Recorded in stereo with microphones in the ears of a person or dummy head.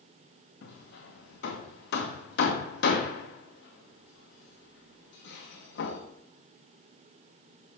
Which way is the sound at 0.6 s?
45° left (ahead or behind).